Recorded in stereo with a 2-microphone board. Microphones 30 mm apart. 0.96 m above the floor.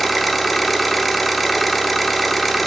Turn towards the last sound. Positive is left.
turn(degrees=5)  # may be behind; listen again after turning